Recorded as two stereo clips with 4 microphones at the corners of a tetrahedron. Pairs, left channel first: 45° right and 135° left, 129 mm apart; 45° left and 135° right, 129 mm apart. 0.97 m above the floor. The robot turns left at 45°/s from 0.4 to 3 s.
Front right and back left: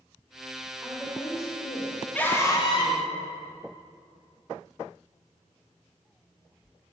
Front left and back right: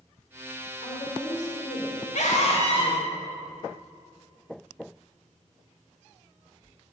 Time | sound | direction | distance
0.8 | a woman speaking | 50° left | 3.5 m
2.1 | a scream | 35° left | 2.5 m